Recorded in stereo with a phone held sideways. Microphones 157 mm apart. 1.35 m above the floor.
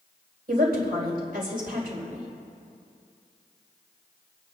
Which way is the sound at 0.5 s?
90° right.